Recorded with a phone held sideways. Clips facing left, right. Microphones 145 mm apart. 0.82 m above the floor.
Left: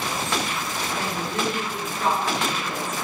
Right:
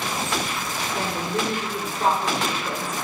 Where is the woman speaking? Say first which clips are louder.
Right 2 dB; 35° right (ahead or behind), 3.5 m.